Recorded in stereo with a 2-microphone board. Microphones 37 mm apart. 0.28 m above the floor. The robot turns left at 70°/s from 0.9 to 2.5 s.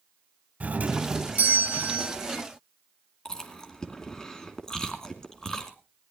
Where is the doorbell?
65° right, 2.5 m; by 2.1 s 155° right, 2.5 m.